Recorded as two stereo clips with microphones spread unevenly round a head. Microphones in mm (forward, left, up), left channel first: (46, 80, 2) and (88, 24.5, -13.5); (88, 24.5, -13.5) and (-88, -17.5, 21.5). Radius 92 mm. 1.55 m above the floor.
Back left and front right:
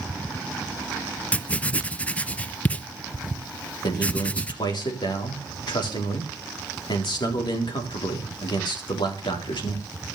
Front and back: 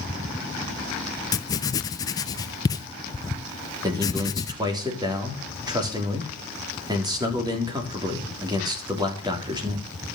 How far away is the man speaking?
About 3.5 m.